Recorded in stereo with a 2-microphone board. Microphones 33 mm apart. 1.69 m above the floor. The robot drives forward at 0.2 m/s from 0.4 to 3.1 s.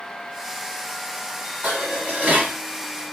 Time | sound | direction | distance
1.6 | dishes clattering | 60° right (ahead or behind) | 1.7 m